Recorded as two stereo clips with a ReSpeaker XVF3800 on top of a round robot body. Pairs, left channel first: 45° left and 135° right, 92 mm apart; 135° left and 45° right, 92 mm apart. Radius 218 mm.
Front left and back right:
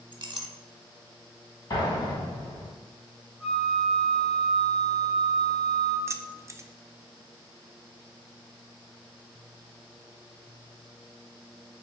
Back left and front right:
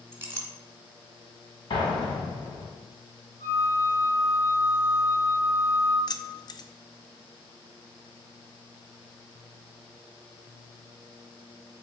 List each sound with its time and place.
0.1 s a clink: 110° right, 0.9 m
1.7 s an explosion: 95° left, 1.0 m
3.4 s a flute: 145° left, 1.7 m
6.1 s keys jangling: 170° left, 0.5 m